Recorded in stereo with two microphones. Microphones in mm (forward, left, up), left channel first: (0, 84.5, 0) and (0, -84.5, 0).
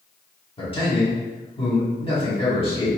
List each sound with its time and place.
0.6 s a man speaking: 30° left (ahead or behind), 1.6 m